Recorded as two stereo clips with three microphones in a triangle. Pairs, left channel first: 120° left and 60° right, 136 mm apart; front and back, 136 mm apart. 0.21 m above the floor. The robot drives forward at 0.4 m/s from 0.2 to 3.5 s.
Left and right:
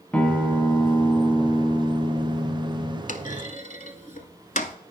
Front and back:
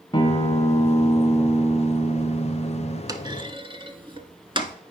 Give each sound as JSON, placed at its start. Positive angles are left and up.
{"t": 0.1, "sound": "a guitar", "azimuth_deg": 40, "distance_m": 1.4}
{"t": 3.1, "sound": "a clunk", "azimuth_deg": 120, "distance_m": 0.7}